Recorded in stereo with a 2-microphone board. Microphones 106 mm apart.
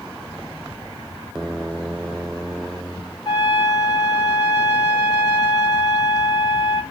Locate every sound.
3.2 s a trumpet: 45° left (ahead or behind), 3.5 m